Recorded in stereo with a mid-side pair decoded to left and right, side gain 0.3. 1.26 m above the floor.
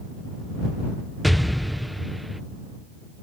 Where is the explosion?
Straight ahead.